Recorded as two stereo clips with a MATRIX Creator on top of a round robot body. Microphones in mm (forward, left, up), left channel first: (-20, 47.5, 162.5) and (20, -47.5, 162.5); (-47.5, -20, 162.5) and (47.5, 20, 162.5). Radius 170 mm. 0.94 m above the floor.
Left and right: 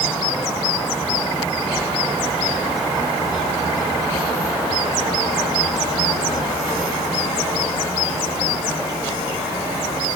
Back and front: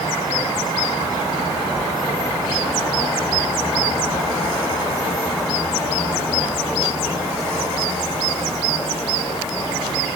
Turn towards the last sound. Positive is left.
No sound to turn to.